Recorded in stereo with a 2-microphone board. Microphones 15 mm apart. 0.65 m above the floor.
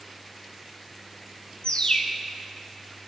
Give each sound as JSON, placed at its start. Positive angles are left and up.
{"t": 1.6, "sound": "a bird", "side_deg": 65, "distance_m": 1.1}